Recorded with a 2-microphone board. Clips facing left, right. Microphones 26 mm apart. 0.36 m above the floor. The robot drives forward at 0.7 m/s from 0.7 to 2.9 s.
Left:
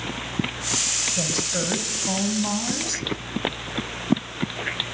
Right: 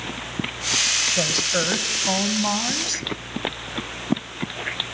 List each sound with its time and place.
1.2 s a woman speaking: 40° right (ahead or behind), 1.6 m; by 3.0 s 25° right (ahead or behind), 2.5 m